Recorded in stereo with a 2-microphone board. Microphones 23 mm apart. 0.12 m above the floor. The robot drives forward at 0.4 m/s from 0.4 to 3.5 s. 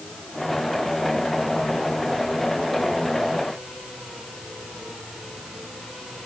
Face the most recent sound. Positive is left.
No sound to turn to.